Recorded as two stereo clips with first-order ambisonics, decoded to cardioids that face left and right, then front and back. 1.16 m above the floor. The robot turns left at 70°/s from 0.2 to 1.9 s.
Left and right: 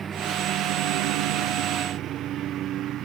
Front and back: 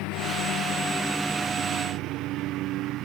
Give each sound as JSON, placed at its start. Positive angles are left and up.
{"t": 0.0, "sound": "a lawn mower", "azimuth_deg": -25}